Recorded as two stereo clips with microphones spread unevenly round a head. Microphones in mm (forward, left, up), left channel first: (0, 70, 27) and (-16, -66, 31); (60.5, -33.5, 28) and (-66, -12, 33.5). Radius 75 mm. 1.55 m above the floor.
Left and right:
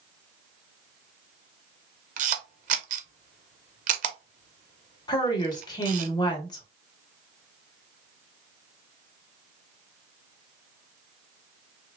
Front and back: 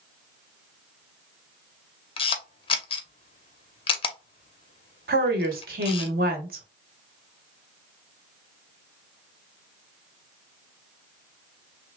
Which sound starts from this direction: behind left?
A woman speaking, at 5.1 s.